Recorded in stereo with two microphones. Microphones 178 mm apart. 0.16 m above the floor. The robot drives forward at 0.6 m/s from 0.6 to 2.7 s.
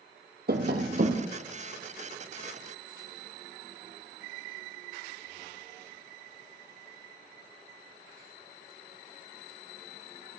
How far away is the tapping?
About 1.2 m.